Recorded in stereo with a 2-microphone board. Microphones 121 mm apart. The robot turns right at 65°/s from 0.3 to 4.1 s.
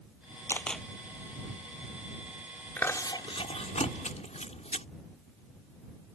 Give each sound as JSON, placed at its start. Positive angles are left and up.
{"t": 0.5, "sound": "a camera shutter", "side_deg": 20}
{"t": 2.8, "sound": "chewing", "side_deg": 15}